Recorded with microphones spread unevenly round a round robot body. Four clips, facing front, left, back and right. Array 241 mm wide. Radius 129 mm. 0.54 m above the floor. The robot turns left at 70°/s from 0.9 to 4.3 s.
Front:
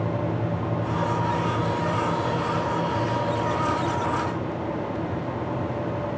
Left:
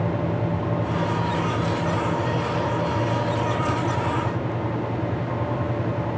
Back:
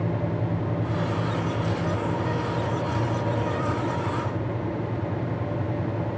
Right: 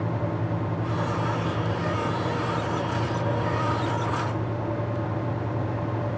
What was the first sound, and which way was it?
Only background noise.